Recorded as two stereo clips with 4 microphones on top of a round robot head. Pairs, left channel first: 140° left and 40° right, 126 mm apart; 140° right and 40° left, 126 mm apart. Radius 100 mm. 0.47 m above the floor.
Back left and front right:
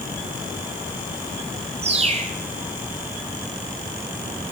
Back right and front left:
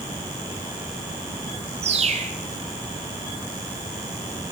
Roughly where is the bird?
Ahead.